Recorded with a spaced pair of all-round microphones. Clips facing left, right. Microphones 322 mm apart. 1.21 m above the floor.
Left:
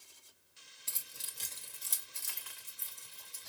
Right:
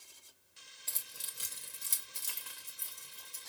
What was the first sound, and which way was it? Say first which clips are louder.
Keys jangling: even; 15° left (ahead or behind).